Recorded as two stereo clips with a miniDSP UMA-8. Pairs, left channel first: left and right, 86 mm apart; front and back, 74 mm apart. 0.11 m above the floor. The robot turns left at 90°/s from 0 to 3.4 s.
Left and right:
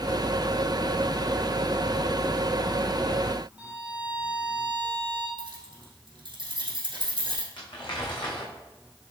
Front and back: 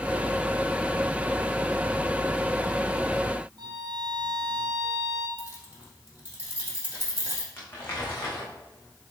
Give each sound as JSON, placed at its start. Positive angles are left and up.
{"t": 3.6, "sound": "a violin", "azimuth_deg": -165, "distance_m": 1.6}
{"t": 5.4, "sound": "keys jangling", "azimuth_deg": -115, "distance_m": 3.0}
{"t": 7.6, "sound": "crumpling", "azimuth_deg": 60, "distance_m": 3.5}